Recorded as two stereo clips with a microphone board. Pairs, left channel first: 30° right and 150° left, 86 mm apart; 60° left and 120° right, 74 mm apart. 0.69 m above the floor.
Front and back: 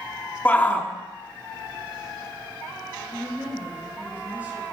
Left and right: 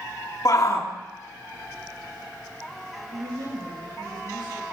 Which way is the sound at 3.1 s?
140° right.